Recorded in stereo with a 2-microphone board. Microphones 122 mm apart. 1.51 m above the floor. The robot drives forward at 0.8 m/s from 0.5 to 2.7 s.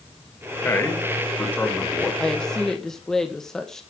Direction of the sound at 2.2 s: 5° left (ahead or behind).